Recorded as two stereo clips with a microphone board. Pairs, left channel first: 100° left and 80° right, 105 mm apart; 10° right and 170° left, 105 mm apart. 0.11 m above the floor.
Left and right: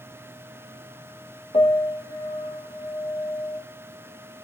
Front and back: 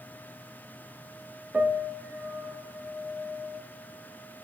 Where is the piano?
100° left, 1.0 m.